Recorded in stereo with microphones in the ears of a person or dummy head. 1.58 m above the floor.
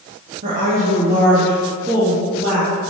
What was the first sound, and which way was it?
A woman speaking, 45° right (ahead or behind).